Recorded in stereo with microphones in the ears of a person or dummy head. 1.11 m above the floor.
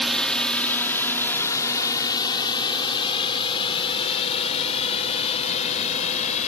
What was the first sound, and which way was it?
A drone, 5° left (ahead or behind).